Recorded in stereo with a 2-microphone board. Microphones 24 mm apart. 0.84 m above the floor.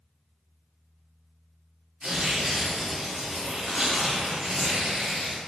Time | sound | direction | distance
2.0 | tearing paper | 35° right (ahead or behind) | 1.6 m